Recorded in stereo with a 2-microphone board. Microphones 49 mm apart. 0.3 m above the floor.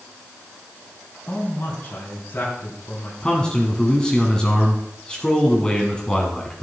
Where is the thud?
No thud in this recording.